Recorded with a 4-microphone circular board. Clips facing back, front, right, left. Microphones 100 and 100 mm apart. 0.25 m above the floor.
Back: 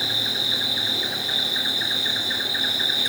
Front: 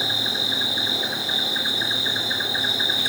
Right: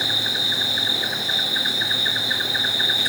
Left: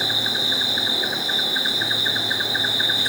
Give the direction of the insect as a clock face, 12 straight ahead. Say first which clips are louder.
Front 2 dB, left 1 dB; 11 o'clock.